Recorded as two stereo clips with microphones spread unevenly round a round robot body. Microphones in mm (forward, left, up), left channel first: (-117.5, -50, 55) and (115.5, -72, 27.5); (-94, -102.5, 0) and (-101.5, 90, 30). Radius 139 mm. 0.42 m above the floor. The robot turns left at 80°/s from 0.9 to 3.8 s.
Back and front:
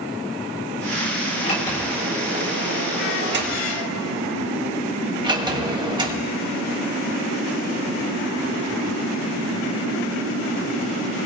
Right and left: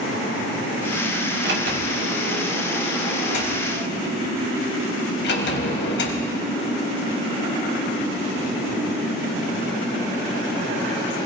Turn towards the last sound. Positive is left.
turn(degrees=-75)